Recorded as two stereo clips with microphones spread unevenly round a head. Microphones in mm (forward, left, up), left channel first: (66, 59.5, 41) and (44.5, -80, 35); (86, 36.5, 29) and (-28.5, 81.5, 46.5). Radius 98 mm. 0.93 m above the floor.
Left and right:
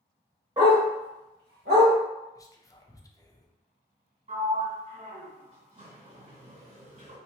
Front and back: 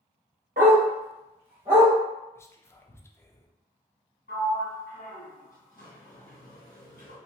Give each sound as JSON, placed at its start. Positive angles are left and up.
{"t": 0.6, "sound": "a dog barking", "azimuth_deg": -170, "distance_m": 0.8}
{"t": 2.4, "sound": "whispering", "azimuth_deg": 25, "distance_m": 0.5}
{"t": 4.3, "sound": "a sliding door", "azimuth_deg": -65, "distance_m": 2.0}